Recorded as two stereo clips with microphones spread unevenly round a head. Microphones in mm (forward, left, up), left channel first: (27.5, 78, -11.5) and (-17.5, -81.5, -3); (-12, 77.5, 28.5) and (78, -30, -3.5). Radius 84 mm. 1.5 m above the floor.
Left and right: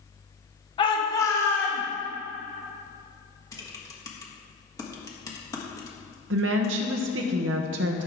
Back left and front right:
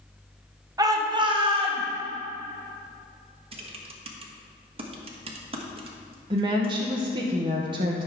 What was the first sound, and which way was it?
A shout, 15° left.